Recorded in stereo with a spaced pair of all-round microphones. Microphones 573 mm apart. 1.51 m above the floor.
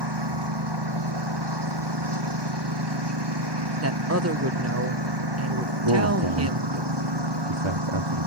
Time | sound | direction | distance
0.0 | a lawn mower | 40° right (ahead or behind) | ?
3.8 | a woman speaking | 25° right (ahead or behind) | ?
5.8 | a man speaking | 50° right (ahead or behind) | ?